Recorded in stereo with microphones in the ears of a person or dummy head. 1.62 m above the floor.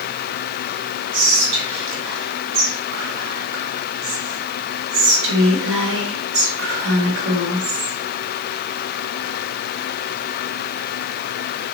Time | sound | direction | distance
1.1 | whispering | 70° right (ahead or behind) | 0.9 m